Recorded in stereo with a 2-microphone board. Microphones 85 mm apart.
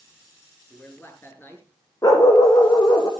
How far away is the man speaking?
About 5 m.